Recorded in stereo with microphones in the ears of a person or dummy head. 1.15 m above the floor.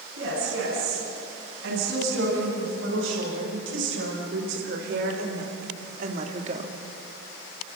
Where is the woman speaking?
85° right, 9.5 m; by 6.7 s 35° right (ahead or behind), 1.8 m.